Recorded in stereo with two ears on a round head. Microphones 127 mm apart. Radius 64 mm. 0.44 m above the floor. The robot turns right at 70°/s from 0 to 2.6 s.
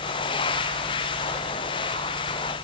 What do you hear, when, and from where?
Only background noise.